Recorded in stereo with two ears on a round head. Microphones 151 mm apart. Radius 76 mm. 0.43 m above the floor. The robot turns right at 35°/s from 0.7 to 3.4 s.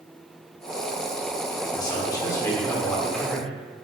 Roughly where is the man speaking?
Left.